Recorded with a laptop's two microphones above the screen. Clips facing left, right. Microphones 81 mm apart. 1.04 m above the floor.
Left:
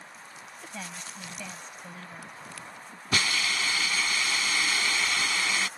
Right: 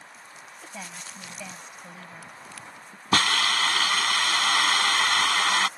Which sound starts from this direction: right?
A hiss, at 3.1 s.